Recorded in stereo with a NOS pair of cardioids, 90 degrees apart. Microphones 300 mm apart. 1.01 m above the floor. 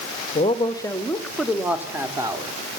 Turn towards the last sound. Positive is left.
turn(degrees=-15)